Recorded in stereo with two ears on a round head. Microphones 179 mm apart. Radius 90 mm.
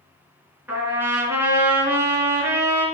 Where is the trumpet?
10° right (ahead or behind), 3 m.